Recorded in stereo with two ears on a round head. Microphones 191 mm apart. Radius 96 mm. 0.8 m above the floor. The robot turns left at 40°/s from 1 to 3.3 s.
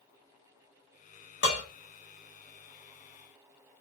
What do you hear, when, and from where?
1.4 s dishes clattering: 55° left (ahead or behind), 1.7 m; by 1.6 s 45° left (ahead or behind), 1.7 m